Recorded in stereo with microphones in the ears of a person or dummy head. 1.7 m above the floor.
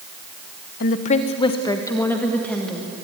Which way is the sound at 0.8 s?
50° left (ahead or behind).